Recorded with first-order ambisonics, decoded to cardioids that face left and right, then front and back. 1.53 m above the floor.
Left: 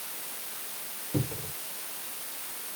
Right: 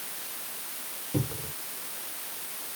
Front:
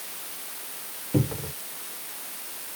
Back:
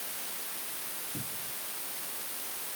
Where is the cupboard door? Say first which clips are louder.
Even, front 12 dB; straight ahead.